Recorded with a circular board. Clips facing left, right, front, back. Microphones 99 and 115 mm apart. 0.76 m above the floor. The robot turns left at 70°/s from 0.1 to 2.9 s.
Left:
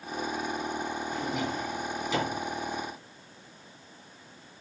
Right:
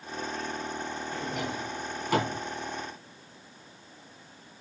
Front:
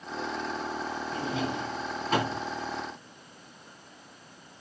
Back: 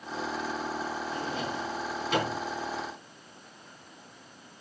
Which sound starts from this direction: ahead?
A drawer, at 1.1 s.